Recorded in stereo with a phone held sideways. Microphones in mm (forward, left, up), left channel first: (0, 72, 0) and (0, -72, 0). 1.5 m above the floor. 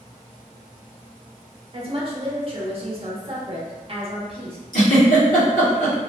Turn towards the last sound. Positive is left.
turn(degrees=75)  # may be behind; listen again after turning